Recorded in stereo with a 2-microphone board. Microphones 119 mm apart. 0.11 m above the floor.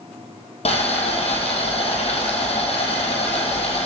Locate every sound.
0.7 s boiling: 70° left (ahead or behind), 1.4 m